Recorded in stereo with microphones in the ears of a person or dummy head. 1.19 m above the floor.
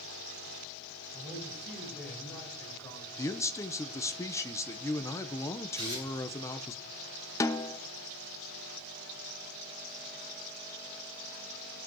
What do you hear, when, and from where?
1.1 s a man speaking: 5° right (ahead or behind), 5.5 m; by 3.2 s 20° left (ahead or behind), 4 m
3.2 s a man speaking: 15° left (ahead or behind), 0.8 m
5.8 s tearing paper: 25° right (ahead or behind), 8 m
7.4 s a snare drum: 15° left (ahead or behind), 0.6 m